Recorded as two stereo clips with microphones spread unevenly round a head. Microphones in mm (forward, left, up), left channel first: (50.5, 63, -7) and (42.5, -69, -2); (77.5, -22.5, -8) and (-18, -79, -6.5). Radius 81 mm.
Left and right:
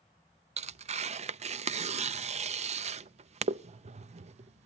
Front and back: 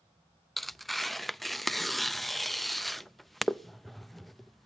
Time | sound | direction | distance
0.6 | tearing paper | 60° right | 0.5 m